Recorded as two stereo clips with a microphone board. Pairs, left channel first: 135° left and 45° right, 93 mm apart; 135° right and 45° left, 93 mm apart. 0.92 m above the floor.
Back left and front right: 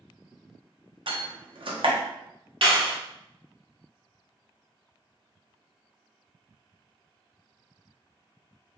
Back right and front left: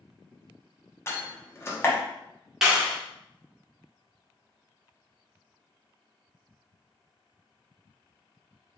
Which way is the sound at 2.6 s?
40° right.